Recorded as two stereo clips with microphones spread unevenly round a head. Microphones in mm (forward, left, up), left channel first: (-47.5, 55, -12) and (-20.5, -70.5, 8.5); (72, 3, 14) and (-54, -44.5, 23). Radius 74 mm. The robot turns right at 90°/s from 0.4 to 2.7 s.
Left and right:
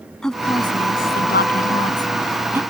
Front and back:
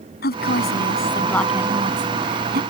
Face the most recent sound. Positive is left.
turn(degrees=-135)